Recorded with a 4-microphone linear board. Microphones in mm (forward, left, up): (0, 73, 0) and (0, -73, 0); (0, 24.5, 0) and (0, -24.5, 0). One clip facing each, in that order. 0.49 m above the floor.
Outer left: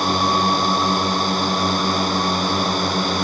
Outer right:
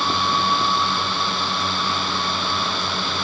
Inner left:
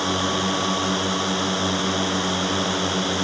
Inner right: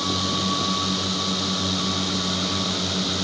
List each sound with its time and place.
0.0 s a drone: 40° left (ahead or behind)